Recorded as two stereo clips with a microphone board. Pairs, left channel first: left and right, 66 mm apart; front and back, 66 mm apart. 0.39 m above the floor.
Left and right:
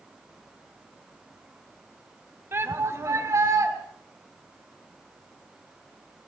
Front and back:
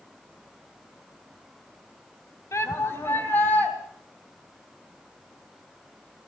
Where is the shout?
40° right, 2.5 m; by 3.7 s 65° right, 4 m.